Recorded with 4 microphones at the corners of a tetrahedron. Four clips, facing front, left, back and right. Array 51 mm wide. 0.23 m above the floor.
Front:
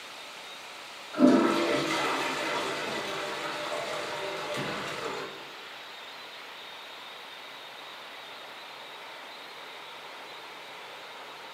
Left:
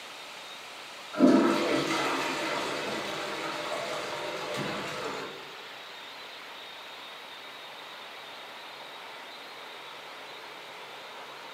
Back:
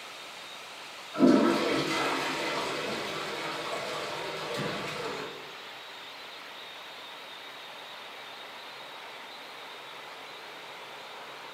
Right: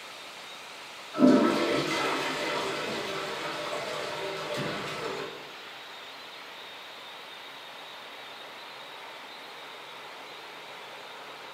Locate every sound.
1.1 s a toilet flushing: 50° left, 1.3 m